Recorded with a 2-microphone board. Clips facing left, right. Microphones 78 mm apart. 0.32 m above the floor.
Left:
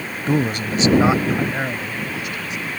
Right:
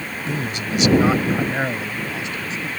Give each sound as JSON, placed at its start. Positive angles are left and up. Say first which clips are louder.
{"t": 0.3, "sound": "a man speaking", "louder": "left 6 dB", "side_deg": 55}